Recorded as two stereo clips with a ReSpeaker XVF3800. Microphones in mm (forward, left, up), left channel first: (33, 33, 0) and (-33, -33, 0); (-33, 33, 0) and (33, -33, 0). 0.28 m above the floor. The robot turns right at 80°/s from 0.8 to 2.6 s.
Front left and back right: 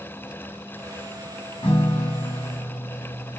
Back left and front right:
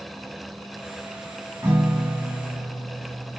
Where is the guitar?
20° left, 5.5 m; by 3.4 s 100° left, 5.5 m.